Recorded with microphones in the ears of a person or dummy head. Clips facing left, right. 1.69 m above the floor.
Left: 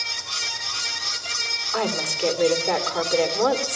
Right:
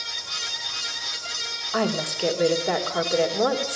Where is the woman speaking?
15° right (ahead or behind), 3 m.